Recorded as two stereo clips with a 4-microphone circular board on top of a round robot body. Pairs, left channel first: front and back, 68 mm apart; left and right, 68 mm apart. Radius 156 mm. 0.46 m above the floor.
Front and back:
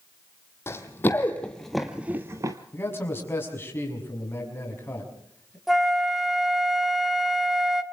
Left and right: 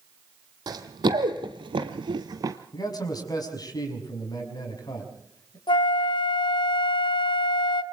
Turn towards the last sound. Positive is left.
turn(degrees=95)